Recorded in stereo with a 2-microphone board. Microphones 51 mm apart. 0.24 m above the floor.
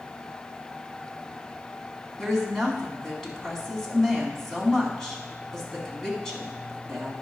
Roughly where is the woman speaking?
Centre.